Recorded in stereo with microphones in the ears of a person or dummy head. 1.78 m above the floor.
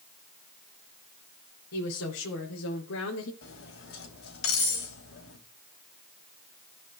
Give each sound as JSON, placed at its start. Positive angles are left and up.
{"t": 1.7, "sound": "a woman speaking", "side_deg": 85, "distance_m": 1.8}
{"t": 3.4, "sound": "cutlery clinking", "side_deg": 70, "distance_m": 2.5}